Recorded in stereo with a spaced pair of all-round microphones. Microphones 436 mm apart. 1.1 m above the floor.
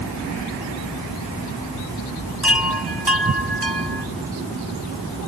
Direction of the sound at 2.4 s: 65° right (ahead or behind).